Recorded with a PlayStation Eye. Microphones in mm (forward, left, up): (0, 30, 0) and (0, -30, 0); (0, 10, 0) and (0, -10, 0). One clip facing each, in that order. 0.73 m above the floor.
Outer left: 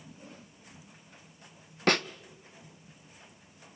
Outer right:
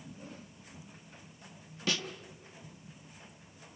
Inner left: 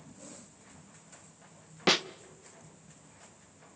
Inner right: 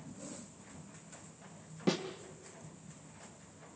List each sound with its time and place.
1.9 s a snare drum: 50° left (ahead or behind), 0.6 m